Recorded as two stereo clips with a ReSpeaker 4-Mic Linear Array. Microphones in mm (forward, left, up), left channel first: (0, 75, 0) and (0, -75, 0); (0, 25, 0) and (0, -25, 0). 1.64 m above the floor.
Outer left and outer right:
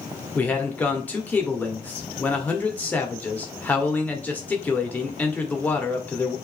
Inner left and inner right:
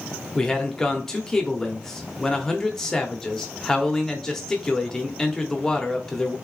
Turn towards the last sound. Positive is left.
turn(degrees=10)  # may be behind; listen again after turning